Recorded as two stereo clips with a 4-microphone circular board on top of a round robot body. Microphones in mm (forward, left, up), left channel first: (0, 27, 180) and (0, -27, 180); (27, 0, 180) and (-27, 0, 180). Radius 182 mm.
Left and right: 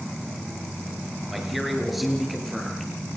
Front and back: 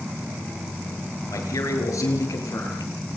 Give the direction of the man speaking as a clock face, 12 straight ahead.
12 o'clock.